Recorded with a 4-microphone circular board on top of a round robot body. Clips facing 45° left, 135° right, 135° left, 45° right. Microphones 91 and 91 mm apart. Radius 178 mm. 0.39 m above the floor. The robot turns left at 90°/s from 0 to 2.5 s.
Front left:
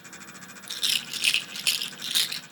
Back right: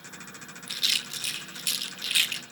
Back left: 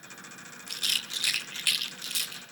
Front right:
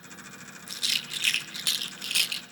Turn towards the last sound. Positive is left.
turn(degrees=-50)